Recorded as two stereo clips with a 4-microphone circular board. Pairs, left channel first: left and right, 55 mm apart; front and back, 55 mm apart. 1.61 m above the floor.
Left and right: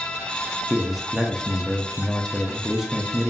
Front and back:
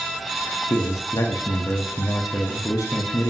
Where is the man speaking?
Straight ahead, 0.5 m.